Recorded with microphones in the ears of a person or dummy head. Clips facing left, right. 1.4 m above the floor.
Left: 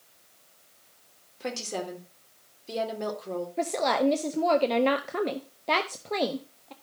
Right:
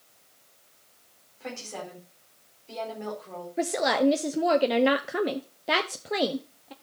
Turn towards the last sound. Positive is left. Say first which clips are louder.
# right 2 dB
turn(degrees=-10)  # may be behind; listen again after turning